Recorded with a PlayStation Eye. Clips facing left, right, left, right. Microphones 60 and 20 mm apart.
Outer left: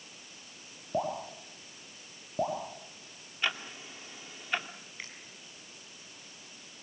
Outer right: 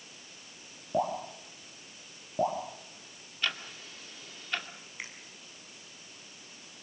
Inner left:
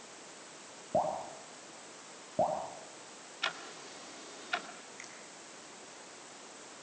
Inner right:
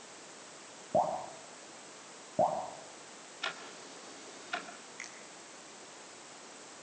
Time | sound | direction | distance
0.9 | dripping | centre (ahead or behind) | 7 m
3.4 | ticking | 20° left (ahead or behind) | 1.9 m
5.0 | a finger snap | 15° right (ahead or behind) | 6 m